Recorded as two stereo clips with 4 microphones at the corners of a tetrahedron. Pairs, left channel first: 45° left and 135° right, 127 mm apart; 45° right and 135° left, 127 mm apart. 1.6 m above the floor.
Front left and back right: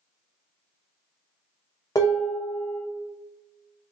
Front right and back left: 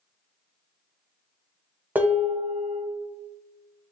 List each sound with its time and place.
1.9 s dishes clattering: 65° left, 0.6 m